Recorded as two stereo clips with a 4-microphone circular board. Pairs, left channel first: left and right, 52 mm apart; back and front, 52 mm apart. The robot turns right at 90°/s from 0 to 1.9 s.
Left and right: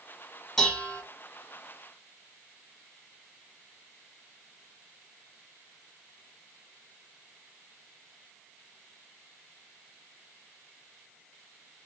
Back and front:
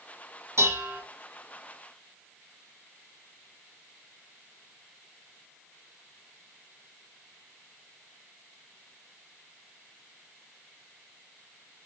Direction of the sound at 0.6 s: 5° left.